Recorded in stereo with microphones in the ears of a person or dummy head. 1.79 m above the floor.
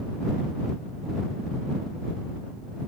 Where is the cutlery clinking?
No cutlery clinking in this recording.